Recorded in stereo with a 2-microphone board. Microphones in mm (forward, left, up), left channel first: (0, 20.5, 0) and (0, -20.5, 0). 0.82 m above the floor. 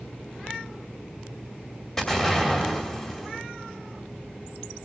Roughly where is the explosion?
Centre.